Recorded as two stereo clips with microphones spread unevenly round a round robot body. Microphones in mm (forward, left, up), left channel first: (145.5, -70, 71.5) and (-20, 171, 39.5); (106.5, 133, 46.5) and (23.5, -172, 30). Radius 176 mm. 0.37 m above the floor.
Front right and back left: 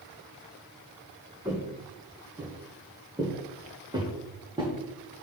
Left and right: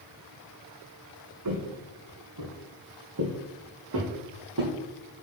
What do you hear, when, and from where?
1.4 s footsteps: 150° right, 1.7 m; by 4.7 s 155° right, 3.5 m